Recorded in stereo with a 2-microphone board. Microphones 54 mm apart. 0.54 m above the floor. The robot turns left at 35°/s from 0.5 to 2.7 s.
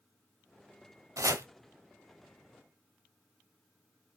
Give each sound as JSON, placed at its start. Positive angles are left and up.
{"t": 1.2, "sound": "chopping", "side_deg": -85, "distance_m": 0.9}